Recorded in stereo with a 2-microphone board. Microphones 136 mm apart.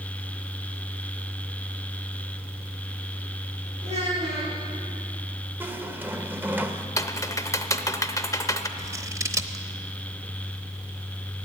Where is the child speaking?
50° right (ahead or behind), 6.5 m.